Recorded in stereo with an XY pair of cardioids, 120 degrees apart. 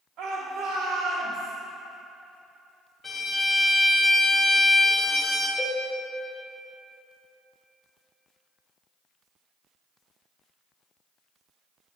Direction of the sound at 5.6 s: 5° left.